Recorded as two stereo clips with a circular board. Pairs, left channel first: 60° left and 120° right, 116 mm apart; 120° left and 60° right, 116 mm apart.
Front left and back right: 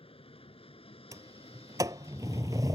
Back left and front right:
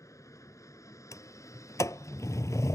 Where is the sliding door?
Straight behind.